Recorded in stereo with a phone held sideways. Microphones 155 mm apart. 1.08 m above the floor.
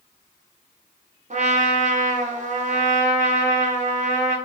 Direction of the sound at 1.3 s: 50° right (ahead or behind).